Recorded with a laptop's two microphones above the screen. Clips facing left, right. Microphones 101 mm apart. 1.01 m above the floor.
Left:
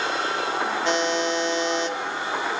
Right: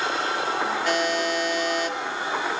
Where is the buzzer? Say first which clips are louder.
Left 2 dB; 25° left (ahead or behind), 2.5 m.